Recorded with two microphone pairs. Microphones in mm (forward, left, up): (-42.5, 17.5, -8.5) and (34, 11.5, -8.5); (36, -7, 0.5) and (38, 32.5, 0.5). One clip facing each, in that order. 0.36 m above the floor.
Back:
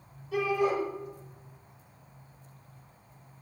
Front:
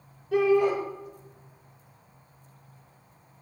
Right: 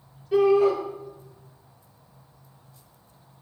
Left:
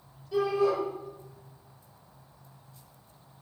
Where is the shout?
40° right, 8 m.